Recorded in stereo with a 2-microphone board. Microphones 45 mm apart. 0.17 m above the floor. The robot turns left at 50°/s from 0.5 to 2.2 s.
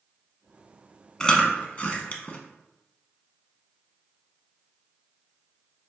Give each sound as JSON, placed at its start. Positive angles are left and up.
{"t": 1.2, "sound": "chewing", "side_deg": 20, "distance_m": 0.7}